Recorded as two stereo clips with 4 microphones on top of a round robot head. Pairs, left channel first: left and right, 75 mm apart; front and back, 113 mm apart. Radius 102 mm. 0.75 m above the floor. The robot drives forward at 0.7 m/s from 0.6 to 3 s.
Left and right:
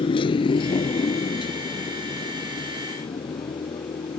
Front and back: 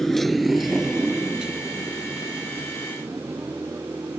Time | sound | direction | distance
0.0 | a motorcycle | 85° left | ?